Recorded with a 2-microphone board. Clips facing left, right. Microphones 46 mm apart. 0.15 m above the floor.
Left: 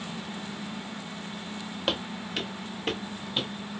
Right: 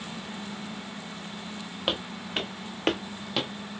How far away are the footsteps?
About 1.5 m.